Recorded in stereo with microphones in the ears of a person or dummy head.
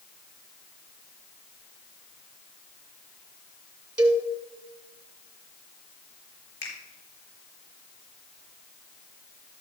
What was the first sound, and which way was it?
A cowbell, 10° right (ahead or behind).